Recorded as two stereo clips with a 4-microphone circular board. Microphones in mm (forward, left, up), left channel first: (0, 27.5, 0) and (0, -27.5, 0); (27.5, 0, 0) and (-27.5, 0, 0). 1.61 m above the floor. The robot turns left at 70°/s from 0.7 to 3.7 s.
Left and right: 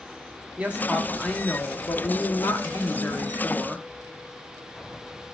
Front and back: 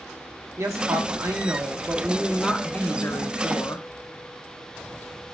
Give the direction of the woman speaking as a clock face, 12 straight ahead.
5 o'clock.